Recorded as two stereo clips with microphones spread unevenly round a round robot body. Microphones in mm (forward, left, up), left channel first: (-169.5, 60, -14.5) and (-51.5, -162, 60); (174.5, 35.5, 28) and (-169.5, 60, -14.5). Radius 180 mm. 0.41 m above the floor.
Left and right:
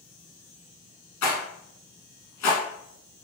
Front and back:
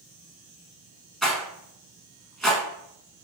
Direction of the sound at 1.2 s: 80° left.